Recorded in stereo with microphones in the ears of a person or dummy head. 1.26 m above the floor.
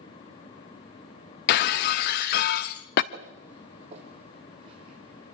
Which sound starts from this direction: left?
Breaking glass, at 1.5 s.